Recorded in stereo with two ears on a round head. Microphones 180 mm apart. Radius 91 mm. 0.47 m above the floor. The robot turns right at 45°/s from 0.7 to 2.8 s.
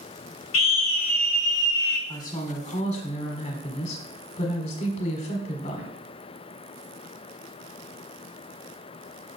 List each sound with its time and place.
0.5 s a scream: 40° left, 1.9 m; by 2.0 s 100° left, 1.9 m
2.1 s a woman speaking: 20° left, 1.6 m; by 6.0 s 55° left, 1.6 m